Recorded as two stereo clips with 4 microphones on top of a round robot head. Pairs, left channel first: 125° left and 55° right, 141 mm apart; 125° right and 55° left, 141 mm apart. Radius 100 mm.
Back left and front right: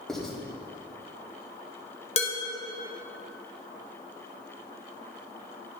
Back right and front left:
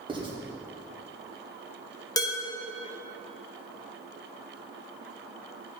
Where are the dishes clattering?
170° left, 1.2 m.